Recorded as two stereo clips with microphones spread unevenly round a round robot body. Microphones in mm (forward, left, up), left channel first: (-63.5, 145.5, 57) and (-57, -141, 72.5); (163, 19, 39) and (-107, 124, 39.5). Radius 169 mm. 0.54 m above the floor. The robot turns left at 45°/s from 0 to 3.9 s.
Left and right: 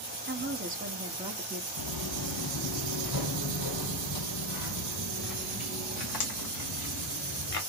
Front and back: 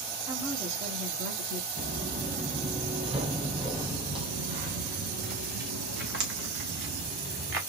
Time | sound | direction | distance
0.3 | a woman speaking | 120° right | 1.3 m
1.8 | footsteps | 100° left | 1.1 m